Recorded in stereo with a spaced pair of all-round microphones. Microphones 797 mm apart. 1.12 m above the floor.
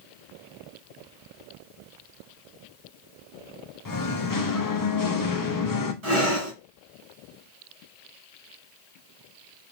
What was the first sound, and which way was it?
Singing, 30° left (ahead or behind).